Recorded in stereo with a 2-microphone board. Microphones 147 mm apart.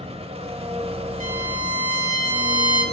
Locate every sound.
0.0 s an engine running: 40° right (ahead or behind), 0.9 m
1.2 s a violin: 60° right (ahead or behind), 1.8 m